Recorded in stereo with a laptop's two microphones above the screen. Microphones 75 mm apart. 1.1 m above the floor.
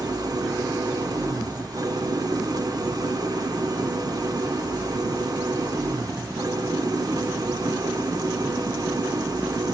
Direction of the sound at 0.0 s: 55° right (ahead or behind).